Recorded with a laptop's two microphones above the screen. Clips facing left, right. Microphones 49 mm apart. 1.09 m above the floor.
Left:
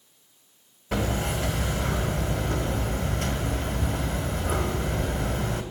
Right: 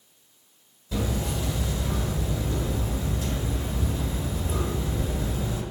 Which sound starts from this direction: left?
Hammering, at 0.9 s.